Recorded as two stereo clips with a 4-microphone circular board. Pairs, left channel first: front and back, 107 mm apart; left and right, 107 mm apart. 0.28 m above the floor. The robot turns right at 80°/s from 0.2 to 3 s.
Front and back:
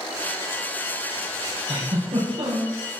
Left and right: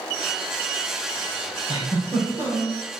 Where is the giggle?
140° left, 6 m; by 2.8 s 130° right, 6 m.